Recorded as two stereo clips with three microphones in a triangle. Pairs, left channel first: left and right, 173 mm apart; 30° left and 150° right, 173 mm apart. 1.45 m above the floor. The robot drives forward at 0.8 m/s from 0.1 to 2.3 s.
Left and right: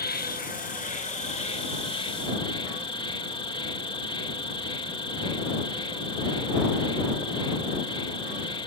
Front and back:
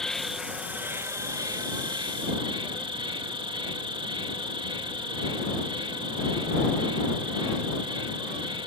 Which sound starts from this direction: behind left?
An insect, at 0.0 s.